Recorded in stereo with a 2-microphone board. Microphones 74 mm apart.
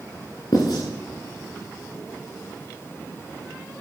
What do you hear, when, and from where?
0.5 s writing: 75° left (ahead or behind), 5.5 m